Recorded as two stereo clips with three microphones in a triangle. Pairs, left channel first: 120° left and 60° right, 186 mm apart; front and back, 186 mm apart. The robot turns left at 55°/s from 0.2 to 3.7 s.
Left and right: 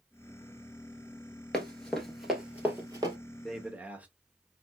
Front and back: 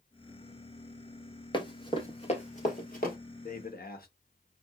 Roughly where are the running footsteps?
Ahead left.